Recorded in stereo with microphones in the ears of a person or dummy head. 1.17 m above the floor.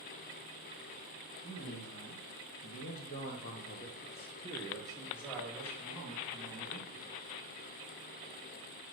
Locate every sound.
1.4 s a man speaking: 30° left (ahead or behind), 1.7 m; by 7.2 s 10° right (ahead or behind), 2 m